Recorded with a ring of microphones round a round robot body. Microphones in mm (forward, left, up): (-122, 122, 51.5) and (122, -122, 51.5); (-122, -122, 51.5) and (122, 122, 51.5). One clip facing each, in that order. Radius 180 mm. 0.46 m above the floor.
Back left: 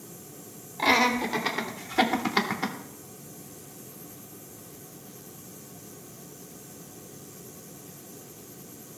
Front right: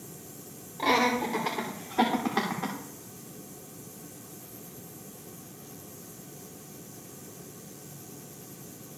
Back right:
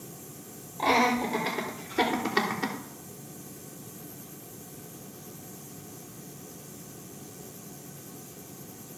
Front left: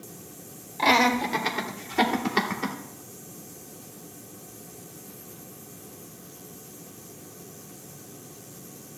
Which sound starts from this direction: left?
Laughter, at 0.8 s.